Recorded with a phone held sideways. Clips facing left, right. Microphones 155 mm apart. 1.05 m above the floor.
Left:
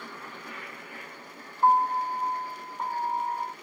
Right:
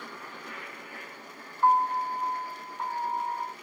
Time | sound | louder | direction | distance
1.6 | a piano | left 1 dB | 20° left (ahead or behind) | ?